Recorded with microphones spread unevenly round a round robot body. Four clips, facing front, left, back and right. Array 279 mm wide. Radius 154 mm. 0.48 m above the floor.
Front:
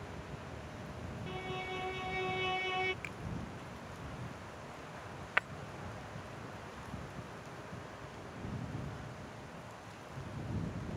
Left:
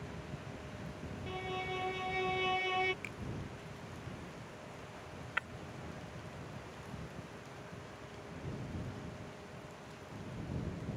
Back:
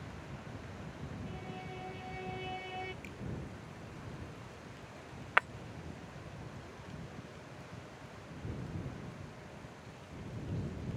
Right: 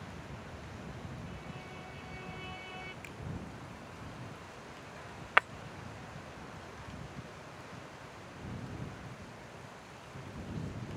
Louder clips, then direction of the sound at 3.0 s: Left 1 dB, front 2 dB; 20° right.